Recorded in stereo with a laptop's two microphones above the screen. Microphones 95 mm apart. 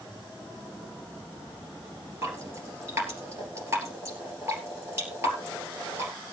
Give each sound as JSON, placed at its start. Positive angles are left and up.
{"t": 2.2, "sound": "dripping", "side_deg": -30, "distance_m": 3.0}